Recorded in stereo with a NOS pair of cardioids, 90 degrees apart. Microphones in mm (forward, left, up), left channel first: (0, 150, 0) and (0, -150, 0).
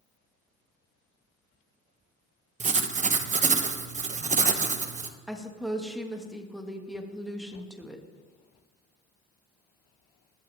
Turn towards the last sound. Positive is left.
turn(degrees=0)